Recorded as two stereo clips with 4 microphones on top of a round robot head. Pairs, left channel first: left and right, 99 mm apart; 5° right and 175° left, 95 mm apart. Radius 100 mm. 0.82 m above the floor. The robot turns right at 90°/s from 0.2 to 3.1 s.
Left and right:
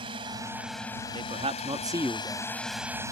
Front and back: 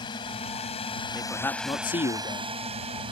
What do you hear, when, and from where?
0.0 s a drone: 50° right; by 3.1 s 145° right
1.1 s a man speaking: 105° right; by 2.5 s 25° left